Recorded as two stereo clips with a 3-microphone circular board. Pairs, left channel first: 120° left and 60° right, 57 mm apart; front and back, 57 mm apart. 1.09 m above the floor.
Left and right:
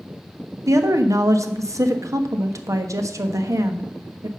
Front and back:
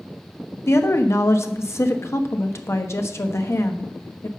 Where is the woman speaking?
40° right, 1.2 m.